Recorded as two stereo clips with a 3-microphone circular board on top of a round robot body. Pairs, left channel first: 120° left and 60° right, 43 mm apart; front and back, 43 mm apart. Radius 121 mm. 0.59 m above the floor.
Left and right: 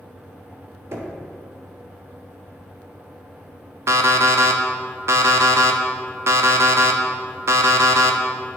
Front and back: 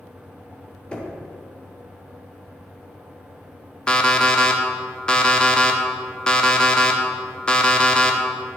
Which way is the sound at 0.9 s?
65° right.